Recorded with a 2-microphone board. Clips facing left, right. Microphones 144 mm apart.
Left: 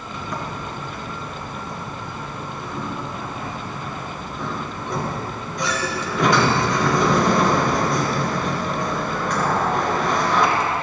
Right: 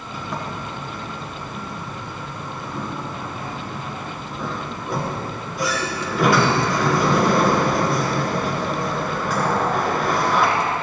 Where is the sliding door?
5° right (ahead or behind), 1.9 m.